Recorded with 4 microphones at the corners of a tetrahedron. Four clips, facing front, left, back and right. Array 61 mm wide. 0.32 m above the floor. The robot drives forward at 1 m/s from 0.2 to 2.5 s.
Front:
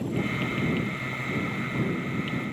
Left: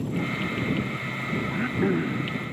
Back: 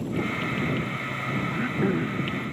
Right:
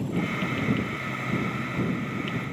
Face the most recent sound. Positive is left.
turn(degrees=125)